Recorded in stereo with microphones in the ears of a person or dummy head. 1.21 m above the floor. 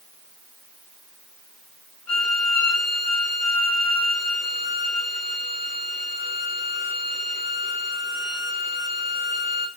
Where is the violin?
10° left (ahead or behind), 4.5 m.